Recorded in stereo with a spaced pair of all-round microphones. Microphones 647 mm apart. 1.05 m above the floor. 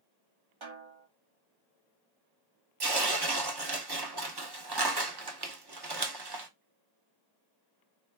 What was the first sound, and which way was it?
A snare drum, 45° right (ahead or behind).